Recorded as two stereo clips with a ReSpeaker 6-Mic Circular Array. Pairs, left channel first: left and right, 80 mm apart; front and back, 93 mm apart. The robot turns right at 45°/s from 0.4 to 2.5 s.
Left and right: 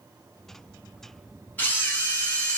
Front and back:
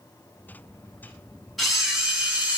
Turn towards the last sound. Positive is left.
turn(degrees=125)